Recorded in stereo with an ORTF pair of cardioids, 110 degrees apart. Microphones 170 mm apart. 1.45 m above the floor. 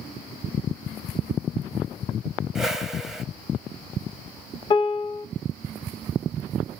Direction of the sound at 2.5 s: 5° right.